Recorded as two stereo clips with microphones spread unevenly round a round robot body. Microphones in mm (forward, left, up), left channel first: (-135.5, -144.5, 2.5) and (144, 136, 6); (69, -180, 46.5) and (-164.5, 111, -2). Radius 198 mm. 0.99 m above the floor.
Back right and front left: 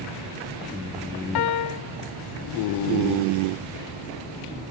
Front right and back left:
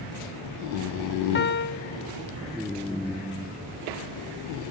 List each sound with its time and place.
1.4 s a piano: 115° right, 0.5 m